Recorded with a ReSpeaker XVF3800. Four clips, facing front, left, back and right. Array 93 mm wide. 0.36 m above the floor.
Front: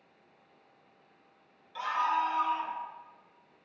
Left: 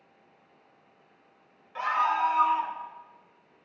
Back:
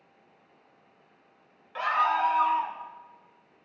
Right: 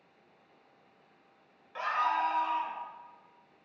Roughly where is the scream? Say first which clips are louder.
Left 4 dB, back 4 dB; behind.